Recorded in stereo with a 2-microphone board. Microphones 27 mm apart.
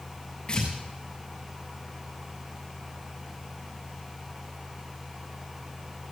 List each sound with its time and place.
0.5 s tearing paper: 40° left (ahead or behind), 8 m